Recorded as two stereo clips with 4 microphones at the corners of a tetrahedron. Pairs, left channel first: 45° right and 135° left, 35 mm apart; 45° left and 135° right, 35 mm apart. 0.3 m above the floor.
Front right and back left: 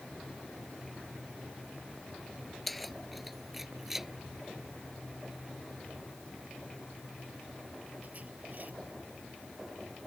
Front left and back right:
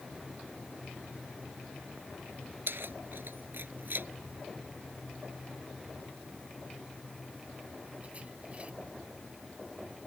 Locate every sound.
2.7 s keys jangling: 135° right; by 8.7 s 170° left